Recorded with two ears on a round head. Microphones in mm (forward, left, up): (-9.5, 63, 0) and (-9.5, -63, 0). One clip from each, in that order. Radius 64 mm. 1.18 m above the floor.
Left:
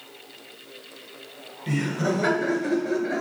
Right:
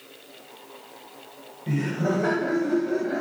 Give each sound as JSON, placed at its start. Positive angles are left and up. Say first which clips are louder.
{"t": 1.7, "sound": "laughter", "louder": "left 1 dB", "side_deg": 70, "distance_m": 7.5}